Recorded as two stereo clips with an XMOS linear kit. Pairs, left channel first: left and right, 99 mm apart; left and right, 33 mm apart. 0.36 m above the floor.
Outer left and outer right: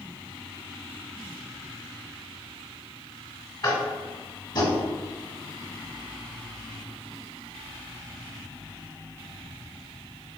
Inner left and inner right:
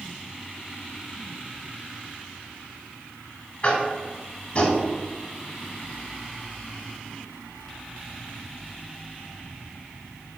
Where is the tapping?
45° left (ahead or behind), 0.9 m.